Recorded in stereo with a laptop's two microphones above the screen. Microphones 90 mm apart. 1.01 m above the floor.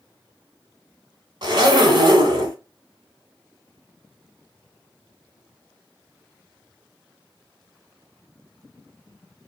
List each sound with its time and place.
1.4 s a zipper: 55° right (ahead or behind), 1.6 m